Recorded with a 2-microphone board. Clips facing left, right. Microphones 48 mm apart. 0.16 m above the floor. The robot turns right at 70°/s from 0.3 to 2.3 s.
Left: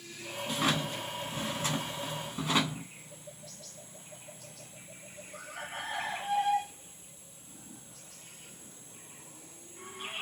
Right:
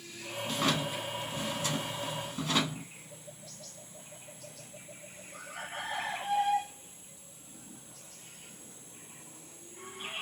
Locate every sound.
0.5 s a drawer: 10° left, 0.8 m; by 2.9 s 140° left, 0.8 m